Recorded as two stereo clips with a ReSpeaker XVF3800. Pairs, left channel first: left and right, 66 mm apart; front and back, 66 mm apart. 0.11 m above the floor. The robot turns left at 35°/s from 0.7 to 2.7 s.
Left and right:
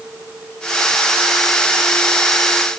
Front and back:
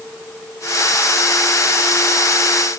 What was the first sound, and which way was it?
Only background noise.